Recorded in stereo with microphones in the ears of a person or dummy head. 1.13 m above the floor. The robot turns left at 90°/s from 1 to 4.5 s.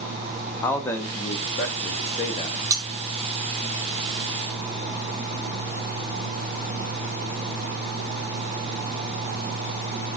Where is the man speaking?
160° left, 0.7 m; by 2.6 s 20° left, 0.7 m.